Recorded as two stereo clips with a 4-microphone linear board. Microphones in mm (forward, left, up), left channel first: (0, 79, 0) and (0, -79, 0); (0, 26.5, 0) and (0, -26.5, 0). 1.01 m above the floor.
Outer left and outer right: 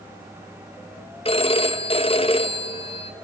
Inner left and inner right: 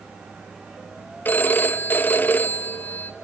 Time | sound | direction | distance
1.2 | a phone ringing | 35° left (ahead or behind) | 0.7 m